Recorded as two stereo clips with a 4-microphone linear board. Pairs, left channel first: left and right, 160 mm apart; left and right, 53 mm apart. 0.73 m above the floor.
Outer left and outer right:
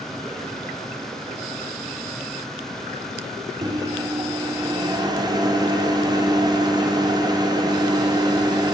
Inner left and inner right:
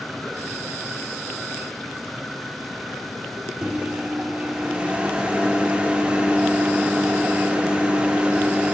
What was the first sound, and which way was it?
A microwave, 25° right (ahead or behind).